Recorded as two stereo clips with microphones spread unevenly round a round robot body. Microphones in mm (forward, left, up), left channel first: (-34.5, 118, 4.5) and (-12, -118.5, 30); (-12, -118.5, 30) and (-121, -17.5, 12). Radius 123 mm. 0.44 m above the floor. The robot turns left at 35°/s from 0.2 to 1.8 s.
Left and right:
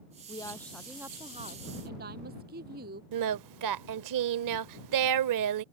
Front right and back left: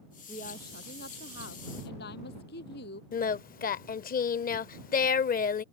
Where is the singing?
75° right.